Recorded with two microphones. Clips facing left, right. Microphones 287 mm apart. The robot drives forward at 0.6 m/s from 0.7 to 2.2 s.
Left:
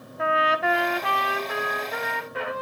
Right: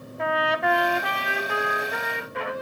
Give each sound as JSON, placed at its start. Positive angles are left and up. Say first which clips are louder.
{"t": 0.2, "sound": "a trumpet", "louder": "even", "side_deg": 0, "distance_m": 0.7}